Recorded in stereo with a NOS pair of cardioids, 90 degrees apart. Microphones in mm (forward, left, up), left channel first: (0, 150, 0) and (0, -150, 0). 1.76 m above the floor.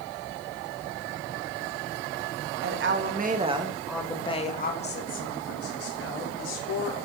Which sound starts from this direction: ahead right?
A woman speaking, at 2.6 s.